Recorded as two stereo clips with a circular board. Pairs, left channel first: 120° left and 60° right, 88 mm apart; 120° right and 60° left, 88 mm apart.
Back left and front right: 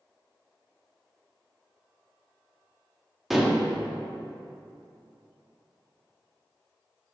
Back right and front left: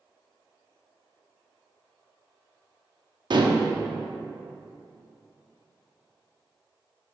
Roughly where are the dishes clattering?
Ahead left.